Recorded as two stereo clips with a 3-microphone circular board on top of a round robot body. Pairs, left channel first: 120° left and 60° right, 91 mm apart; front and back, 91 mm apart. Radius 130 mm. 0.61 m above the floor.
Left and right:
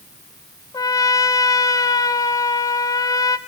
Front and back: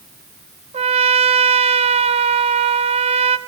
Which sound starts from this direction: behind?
A trumpet, at 0.7 s.